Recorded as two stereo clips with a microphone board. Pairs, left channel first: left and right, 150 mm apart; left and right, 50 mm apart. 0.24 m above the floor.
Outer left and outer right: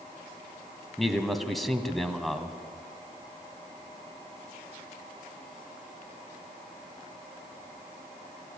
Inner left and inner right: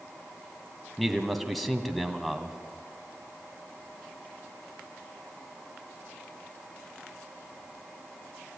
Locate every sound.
1.0 s a man speaking: centre (ahead or behind), 1.8 m